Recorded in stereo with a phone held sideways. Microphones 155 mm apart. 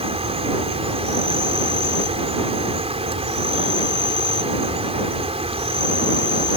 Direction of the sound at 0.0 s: 40° right (ahead or behind).